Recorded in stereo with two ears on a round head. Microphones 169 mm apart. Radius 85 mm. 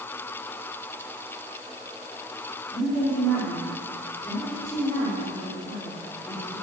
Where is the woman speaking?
25° left (ahead or behind), 5 m.